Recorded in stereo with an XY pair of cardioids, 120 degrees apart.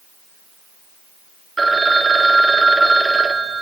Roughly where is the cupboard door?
I don't hear a cupboard door.